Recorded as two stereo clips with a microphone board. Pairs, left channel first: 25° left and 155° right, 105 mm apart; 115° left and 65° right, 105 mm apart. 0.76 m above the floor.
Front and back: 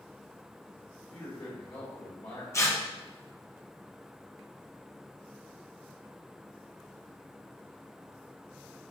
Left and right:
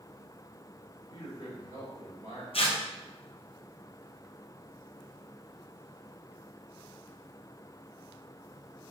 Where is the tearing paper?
85° left, 0.6 m.